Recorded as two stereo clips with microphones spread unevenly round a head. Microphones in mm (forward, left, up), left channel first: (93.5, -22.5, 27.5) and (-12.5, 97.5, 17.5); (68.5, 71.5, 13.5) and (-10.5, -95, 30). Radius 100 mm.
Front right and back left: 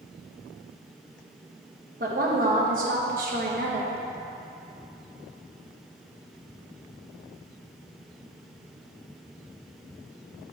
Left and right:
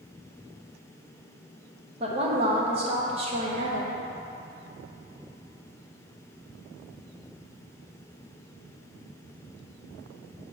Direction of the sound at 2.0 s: 175° right.